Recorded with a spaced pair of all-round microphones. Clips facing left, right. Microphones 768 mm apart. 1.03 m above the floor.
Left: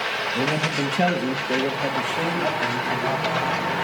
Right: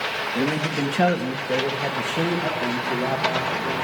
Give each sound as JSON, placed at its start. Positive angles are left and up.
{"t": 0.3, "sound": "a man speaking", "side_deg": 25, "distance_m": 1.7}